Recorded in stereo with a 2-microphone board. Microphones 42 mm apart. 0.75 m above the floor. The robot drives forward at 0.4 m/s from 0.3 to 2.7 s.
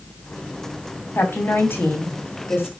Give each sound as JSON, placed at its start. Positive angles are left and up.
{"t": 1.1, "sound": "a woman speaking", "side_deg": 60, "distance_m": 2.5}